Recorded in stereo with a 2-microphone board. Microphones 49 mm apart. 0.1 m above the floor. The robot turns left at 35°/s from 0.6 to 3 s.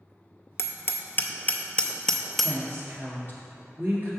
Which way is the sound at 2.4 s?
50° right (ahead or behind).